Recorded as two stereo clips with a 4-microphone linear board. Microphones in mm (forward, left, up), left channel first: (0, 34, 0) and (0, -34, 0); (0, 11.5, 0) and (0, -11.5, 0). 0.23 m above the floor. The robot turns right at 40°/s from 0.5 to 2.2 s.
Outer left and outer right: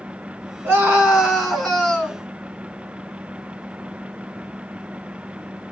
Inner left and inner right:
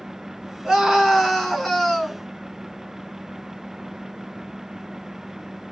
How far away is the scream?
About 2.5 m.